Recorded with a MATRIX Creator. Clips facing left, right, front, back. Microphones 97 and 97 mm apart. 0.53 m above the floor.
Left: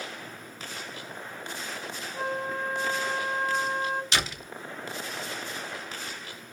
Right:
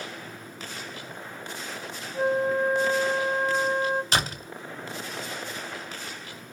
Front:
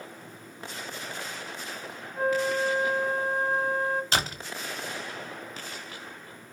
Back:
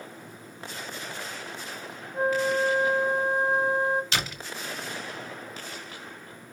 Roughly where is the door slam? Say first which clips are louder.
Right 3 dB, front 3 dB; ahead right.